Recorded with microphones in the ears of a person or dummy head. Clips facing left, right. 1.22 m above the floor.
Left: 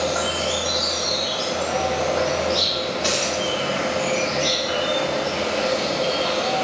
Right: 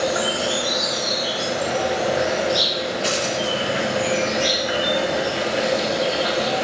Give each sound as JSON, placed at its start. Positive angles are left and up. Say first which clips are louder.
{"t": 0.0, "sound": "an insect", "louder": "right 1 dB", "side_deg": -15, "distance_m": 0.8}
{"t": 3.0, "sound": "a dropped coin", "louder": "right 1 dB", "side_deg": -5, "distance_m": 2.0}